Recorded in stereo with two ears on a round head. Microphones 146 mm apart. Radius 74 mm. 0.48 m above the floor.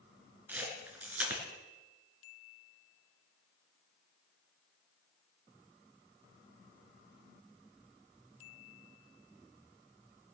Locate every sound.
0.5 s a camera shutter: 10° right (ahead or behind), 3.5 m